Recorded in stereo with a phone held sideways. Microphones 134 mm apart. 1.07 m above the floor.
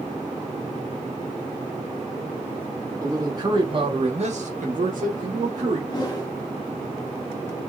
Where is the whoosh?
30° left (ahead or behind), 1.2 m.